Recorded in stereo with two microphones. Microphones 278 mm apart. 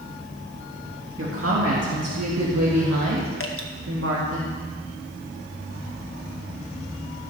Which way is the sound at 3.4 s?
55° left (ahead or behind).